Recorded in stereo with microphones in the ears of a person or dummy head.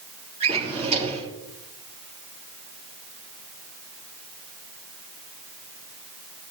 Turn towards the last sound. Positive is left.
turn(degrees=-35)  # may be behind; listen again after turning